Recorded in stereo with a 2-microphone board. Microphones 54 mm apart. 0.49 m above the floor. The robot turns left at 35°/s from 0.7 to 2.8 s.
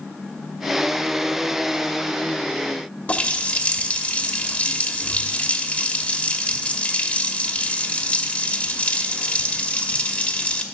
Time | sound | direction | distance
3.1 | a running tap | 30° left (ahead or behind) | 1.0 m